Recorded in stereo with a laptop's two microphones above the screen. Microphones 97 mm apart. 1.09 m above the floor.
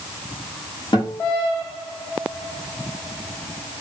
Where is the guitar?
50° left (ahead or behind), 1.8 m.